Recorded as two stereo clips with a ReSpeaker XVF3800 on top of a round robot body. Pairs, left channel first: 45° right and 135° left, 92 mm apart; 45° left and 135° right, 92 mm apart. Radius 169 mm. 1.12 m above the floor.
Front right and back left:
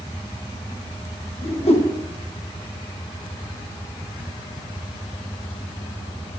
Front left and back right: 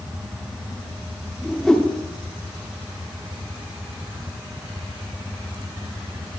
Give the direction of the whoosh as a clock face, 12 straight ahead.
1 o'clock.